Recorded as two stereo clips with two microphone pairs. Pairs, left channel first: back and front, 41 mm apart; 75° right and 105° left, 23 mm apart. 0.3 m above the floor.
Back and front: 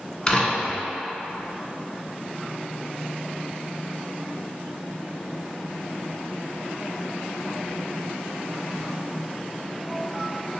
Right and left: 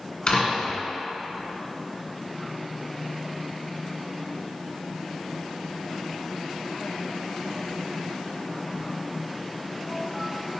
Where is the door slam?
120° right, 1.9 m.